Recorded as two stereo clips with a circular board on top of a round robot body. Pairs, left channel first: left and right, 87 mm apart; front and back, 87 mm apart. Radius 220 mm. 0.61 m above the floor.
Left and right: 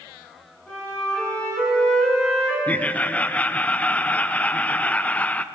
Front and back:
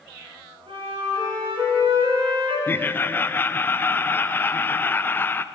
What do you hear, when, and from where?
0.7 s a flute: 170° left, 4.5 m
2.7 s laughter: 35° left, 0.7 m